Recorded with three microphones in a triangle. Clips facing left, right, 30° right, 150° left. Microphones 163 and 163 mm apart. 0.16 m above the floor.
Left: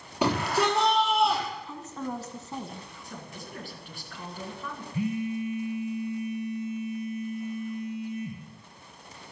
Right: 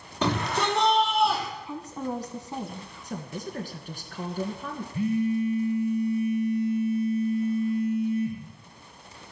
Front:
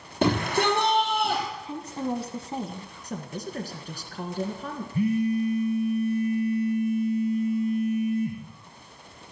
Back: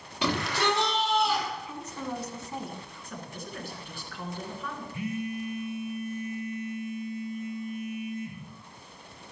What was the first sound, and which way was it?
A shout, 15° left.